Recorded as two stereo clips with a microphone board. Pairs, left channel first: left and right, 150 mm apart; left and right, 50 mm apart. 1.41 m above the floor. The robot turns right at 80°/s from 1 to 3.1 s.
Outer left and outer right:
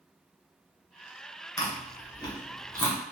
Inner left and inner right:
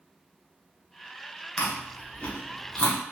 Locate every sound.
1.6 s chewing: 20° left (ahead or behind), 0.6 m; by 3.0 s 10° left (ahead or behind), 0.6 m